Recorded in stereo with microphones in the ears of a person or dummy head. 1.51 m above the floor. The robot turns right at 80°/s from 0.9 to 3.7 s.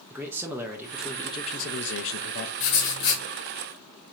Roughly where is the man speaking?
Ahead.